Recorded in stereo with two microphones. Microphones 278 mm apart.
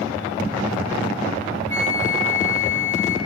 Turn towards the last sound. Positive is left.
turn(degrees=-75)  # may be behind; listen again after turning